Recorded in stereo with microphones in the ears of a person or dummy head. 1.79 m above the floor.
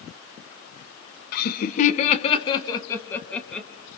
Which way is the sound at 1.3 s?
60° left (ahead or behind).